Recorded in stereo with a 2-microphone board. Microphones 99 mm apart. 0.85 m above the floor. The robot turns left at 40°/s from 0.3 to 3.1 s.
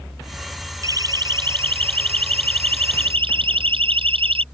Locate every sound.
0.8 s a siren: 35° right (ahead or behind); by 4.4 s 70° right (ahead or behind)